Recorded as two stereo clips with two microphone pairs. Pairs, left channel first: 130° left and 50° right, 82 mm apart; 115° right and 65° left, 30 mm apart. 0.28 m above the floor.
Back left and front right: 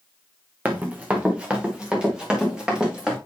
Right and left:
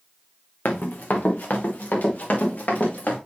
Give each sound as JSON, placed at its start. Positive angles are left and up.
{"t": 0.7, "sound": "running footsteps", "azimuth_deg": -120, "distance_m": 1.4}